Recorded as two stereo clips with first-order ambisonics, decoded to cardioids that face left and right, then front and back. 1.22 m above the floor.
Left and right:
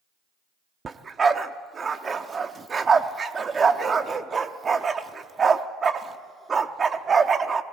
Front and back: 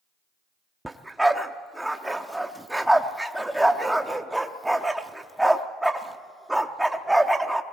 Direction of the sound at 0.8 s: 105° right.